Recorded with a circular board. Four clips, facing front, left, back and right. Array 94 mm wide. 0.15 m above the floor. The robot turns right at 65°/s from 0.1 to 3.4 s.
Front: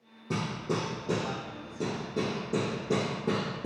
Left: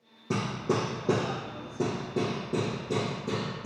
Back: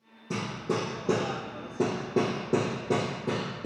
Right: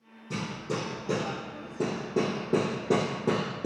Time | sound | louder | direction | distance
0.3 | hammering | left 5 dB, back 1 dB | 75° left | 3 m